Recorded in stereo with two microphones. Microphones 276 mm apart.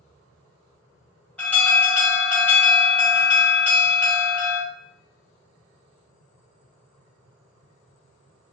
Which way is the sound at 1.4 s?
5° left (ahead or behind).